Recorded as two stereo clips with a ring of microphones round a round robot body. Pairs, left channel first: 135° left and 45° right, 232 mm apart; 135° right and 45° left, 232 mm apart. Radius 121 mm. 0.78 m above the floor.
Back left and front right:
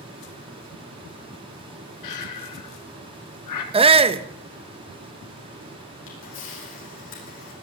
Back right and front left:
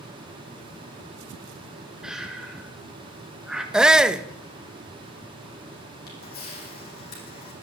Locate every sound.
2.0 s breathing: 130° left, 2 m
3.7 s a shout: 40° right, 0.9 m
6.1 s a camera shutter: 175° left, 7 m